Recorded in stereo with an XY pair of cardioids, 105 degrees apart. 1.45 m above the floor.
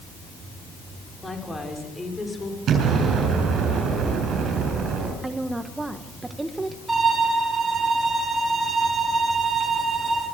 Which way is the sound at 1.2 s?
15° left.